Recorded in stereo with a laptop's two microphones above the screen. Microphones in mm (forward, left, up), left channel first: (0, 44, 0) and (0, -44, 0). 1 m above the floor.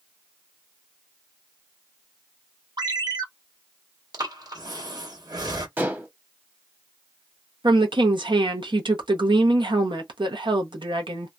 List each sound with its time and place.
2.8 s a ringtone: 55° right (ahead or behind), 0.6 m
4.1 s breathing: 55° right (ahead or behind), 1.3 m
5.8 s dishes clattering: 25° right (ahead or behind), 0.9 m
7.6 s a woman speaking: 75° right (ahead or behind), 0.8 m